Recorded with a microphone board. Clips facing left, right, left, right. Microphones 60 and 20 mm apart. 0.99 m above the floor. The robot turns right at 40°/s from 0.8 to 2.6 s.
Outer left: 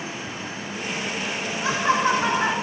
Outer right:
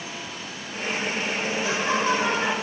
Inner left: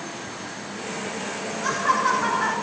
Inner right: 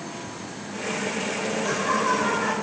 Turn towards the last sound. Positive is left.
turn(degrees=160)